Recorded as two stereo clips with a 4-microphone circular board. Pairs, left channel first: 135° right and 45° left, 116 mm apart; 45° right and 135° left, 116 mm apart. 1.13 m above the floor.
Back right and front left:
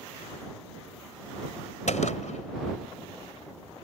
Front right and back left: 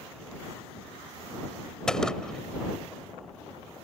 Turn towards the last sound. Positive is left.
turn(degrees=-130)